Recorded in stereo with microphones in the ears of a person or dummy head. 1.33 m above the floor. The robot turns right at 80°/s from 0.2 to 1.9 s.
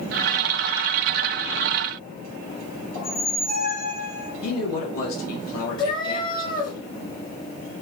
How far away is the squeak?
About 2.5 m.